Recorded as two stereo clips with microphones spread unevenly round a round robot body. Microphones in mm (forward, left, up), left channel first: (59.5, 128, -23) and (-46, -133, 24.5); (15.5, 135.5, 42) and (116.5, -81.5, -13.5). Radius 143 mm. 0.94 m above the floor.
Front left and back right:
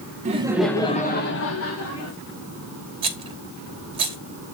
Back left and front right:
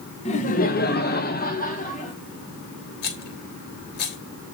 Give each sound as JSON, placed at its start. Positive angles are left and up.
{"t": 0.2, "sound": "laughter", "azimuth_deg": -175, "distance_m": 0.9}
{"t": 3.0, "sound": "a rattle", "azimuth_deg": 175, "distance_m": 1.1}